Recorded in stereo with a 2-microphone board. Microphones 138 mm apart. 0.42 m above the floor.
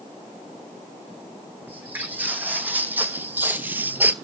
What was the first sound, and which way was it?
Footsteps, 15° right (ahead or behind).